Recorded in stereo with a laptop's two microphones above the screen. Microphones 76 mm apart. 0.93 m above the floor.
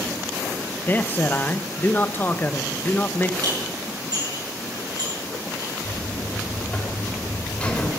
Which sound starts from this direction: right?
Dishes clattering, at 3.4 s.